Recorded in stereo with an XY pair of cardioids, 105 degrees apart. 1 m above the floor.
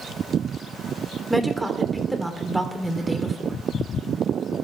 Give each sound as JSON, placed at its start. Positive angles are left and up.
{"t": 1.3, "sound": "a woman speaking", "azimuth_deg": -10, "distance_m": 3.0}